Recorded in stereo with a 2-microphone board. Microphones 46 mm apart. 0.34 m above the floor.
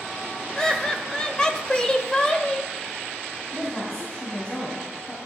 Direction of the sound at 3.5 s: 20° left (ahead or behind).